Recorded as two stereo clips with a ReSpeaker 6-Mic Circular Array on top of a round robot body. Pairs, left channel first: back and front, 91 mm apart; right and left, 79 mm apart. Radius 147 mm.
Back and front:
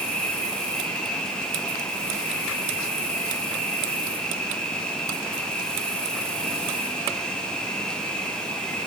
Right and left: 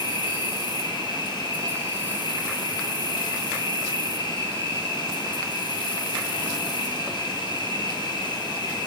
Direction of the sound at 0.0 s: 95° right.